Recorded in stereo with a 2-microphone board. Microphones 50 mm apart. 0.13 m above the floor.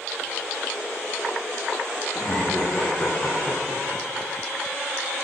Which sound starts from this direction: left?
Laughter, at 2.1 s.